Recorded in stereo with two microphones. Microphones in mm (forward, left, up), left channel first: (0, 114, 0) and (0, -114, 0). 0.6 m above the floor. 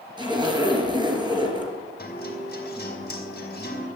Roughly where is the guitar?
Left.